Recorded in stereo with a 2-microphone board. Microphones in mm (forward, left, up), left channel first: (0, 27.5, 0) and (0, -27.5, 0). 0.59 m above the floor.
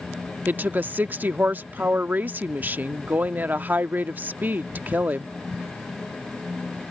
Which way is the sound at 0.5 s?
35° right (ahead or behind).